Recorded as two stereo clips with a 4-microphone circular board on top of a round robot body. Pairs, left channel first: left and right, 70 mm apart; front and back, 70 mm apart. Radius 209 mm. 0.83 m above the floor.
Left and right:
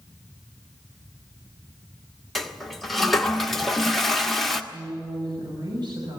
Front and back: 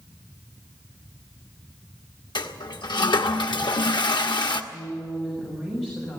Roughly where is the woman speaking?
Right.